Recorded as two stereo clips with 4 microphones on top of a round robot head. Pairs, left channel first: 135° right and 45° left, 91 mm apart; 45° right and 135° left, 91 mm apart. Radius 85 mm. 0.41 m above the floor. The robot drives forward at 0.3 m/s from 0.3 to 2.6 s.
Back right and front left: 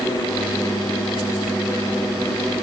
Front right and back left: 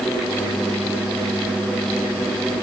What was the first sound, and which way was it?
Only background noise.